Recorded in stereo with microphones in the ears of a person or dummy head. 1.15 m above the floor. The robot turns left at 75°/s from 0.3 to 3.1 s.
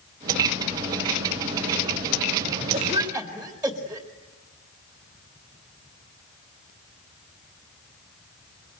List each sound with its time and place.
2.7 s a cough: 35° right (ahead or behind), 1.9 m; by 4.1 s 5° right (ahead or behind), 1.9 m